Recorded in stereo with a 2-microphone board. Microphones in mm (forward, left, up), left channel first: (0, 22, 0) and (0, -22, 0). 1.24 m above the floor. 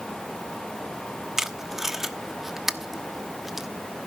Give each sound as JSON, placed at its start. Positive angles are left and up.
{"t": 1.4, "sound": "tape being pulled", "side_deg": -5, "distance_m": 1.1}